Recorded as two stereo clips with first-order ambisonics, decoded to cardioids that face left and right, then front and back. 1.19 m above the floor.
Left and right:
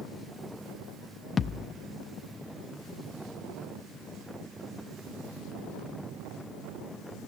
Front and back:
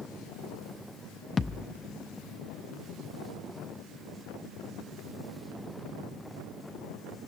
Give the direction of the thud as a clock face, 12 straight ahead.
10 o'clock.